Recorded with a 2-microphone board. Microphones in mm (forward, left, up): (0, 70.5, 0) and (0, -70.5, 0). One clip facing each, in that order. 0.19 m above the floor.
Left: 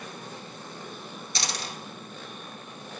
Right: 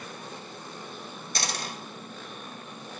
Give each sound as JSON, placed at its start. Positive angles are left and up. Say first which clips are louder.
{"t": 1.4, "sound": "a dropped coin", "louder": "right 1 dB", "side_deg": -55, "distance_m": 1.0}